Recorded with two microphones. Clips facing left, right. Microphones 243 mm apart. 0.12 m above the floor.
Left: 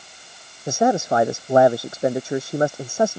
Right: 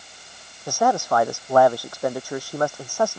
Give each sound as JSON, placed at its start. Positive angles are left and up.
{"t": 0.7, "sound": "a man speaking", "side_deg": 20}